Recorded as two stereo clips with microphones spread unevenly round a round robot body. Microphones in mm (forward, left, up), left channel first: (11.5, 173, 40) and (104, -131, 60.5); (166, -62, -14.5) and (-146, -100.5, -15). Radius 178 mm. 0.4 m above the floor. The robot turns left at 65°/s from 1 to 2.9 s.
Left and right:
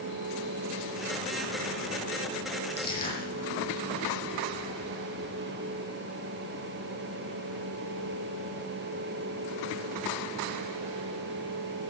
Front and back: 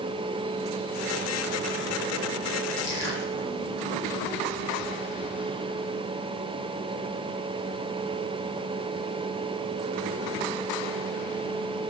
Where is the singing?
No singing in this recording.